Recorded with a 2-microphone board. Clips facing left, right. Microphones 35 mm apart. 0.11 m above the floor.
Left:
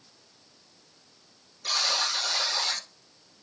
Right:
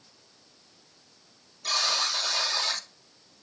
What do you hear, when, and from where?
1.6 s a buzzer: 5° left (ahead or behind), 2.5 m